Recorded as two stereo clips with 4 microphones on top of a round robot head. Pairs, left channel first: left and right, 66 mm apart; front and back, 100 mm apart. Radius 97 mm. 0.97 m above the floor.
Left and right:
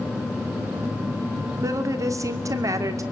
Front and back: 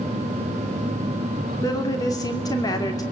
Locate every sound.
1.6 s a woman speaking: 60° right, 2.5 m